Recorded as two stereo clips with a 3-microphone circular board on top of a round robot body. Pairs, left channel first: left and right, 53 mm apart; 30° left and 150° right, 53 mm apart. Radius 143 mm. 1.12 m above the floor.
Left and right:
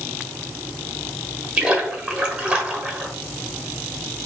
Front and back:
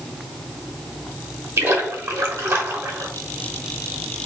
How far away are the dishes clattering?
No dishes clattering in this recording.